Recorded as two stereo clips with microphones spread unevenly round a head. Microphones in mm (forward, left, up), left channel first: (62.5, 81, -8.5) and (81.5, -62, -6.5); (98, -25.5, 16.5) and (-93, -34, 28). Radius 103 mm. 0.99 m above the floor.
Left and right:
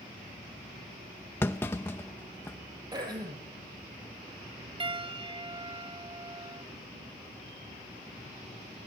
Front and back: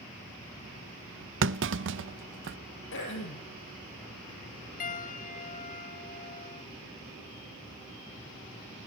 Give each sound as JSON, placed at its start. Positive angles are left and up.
{"t": 1.4, "sound": "a clunk", "azimuth_deg": 175, "distance_m": 0.6}
{"t": 2.9, "sound": "throat clearing", "azimuth_deg": -20, "distance_m": 7.0}
{"t": 4.8, "sound": "a piano", "azimuth_deg": -40, "distance_m": 0.7}